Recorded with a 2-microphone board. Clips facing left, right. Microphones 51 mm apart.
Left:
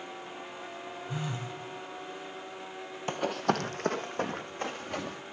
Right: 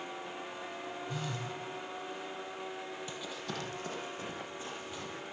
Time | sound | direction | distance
1.1 | a phone buzzing | 20° left (ahead or behind) | 1.9 m
3.1 | running footsteps | 60° left (ahead or behind) | 0.7 m